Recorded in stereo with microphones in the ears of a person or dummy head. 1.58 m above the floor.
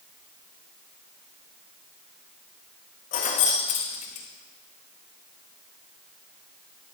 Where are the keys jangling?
50° left (ahead or behind), 1.7 m.